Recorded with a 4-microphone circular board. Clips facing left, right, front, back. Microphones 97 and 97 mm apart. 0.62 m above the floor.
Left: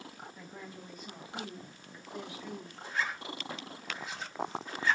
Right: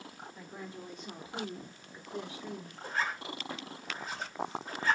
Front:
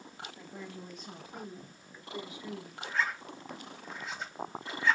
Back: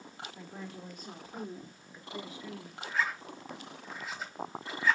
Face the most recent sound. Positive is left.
turn(degrees=-95)